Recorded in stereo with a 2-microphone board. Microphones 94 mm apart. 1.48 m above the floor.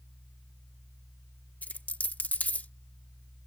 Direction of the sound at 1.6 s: 15° left (ahead or behind).